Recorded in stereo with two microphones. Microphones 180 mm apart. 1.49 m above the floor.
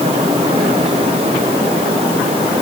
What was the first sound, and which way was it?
Only background noise.